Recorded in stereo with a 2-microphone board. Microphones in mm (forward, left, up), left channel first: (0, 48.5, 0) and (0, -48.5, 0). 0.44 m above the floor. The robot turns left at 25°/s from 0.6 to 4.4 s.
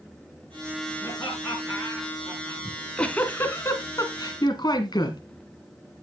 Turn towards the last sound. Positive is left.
turn(degrees=135)